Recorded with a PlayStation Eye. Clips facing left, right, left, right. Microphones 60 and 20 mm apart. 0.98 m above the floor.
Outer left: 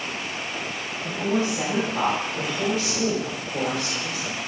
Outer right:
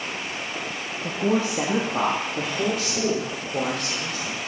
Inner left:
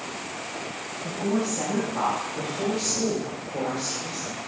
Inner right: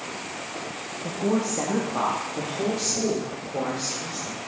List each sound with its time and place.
1.0 s a woman speaking: 65° right (ahead or behind), 1.2 m; by 4.4 s 45° right (ahead or behind), 3.5 m